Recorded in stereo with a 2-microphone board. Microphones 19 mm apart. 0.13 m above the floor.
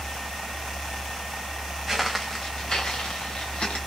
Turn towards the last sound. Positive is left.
turn(degrees=65)  # may be behind; listen again after turning